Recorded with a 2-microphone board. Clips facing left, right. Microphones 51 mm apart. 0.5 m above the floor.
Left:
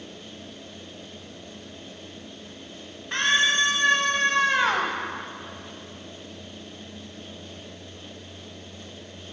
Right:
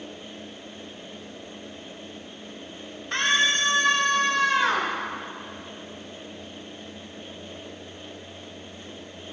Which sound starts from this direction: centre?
A scream, at 3.1 s.